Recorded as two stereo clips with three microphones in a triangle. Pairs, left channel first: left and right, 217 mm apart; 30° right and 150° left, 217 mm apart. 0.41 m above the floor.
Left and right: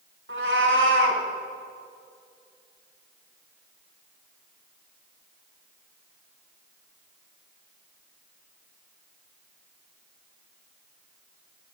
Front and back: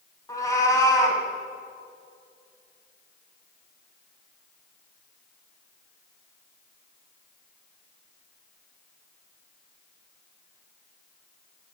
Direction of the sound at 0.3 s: 105° right.